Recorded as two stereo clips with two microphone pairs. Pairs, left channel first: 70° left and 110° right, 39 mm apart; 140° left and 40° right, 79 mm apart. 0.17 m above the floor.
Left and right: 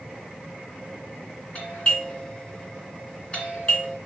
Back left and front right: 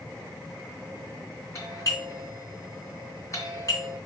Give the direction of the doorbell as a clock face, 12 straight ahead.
8 o'clock.